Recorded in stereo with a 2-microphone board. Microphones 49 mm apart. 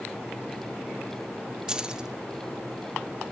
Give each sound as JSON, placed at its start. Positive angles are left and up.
{"t": 1.7, "sound": "keys jangling", "side_deg": -15, "distance_m": 0.9}